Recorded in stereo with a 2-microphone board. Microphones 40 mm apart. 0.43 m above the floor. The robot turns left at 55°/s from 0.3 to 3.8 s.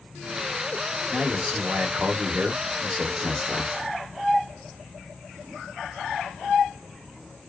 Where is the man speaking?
30° right, 1.0 m; by 3.7 s 175° right, 1.0 m.